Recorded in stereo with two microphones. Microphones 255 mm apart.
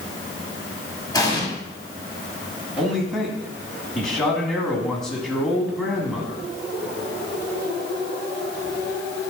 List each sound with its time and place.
1.1 s an explosion: 15° left (ahead or behind), 1.6 m
2.8 s a man speaking: centre (ahead or behind), 1.6 m